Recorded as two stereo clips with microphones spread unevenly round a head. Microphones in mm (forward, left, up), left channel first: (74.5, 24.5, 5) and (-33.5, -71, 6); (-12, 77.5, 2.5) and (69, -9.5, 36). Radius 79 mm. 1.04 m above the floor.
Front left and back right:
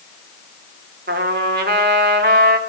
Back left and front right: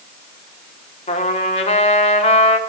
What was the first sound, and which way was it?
A trumpet, straight behind.